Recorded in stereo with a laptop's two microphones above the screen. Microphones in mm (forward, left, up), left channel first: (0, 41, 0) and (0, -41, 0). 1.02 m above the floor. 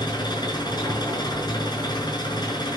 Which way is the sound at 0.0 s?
55° left (ahead or behind).